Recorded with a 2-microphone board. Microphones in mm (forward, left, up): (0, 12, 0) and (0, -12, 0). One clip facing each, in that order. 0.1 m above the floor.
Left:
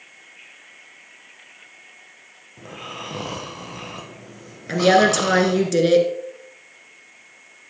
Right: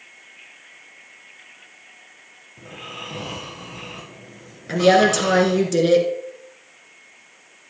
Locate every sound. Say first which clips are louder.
2.6 s snoring: left 1 dB; 45° left (ahead or behind), 1.5 m
4.7 s a woman speaking: even; 10° left (ahead or behind), 1.1 m